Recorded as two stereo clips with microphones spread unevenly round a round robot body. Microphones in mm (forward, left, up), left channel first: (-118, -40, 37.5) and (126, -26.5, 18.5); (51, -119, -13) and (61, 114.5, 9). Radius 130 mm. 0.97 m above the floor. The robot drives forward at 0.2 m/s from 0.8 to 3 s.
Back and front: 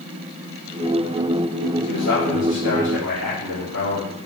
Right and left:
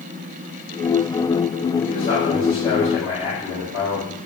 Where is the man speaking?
165° right, 4 m.